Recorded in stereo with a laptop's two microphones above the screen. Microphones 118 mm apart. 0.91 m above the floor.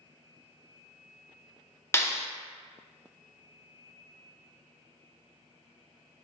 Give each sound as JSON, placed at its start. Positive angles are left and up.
{"t": 1.9, "sound": "a clap", "side_deg": 20, "distance_m": 0.5}